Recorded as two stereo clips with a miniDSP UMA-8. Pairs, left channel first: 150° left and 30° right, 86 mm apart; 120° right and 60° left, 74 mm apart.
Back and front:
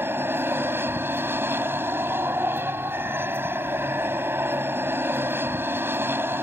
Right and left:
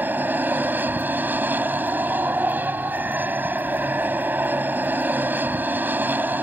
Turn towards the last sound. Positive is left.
turn(degrees=15)